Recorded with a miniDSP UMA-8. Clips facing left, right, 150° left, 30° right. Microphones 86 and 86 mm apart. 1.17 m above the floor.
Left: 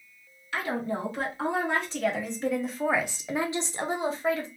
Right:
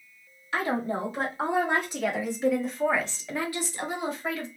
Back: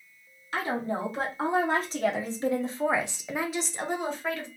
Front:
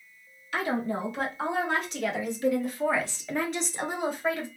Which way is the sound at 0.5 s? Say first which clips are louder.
Right 2 dB, front 1 dB; 160° right.